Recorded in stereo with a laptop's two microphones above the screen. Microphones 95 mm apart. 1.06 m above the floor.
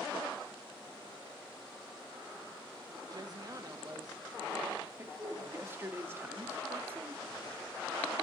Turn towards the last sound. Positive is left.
turn(degrees=-25)  # may be behind; listen again after turning